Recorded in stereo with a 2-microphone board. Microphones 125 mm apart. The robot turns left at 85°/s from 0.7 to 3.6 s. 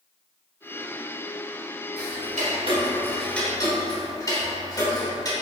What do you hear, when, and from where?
2.0 s ticking: 70° right (ahead or behind), 1.0 m; by 5.3 s 30° left (ahead or behind), 1.0 m